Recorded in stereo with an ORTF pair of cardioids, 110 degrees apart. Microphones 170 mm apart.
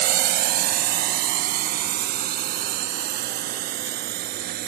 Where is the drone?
70° right.